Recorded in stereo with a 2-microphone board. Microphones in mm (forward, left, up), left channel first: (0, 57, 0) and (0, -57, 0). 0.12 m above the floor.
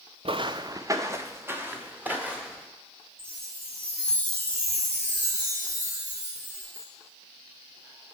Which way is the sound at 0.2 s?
55° right (ahead or behind).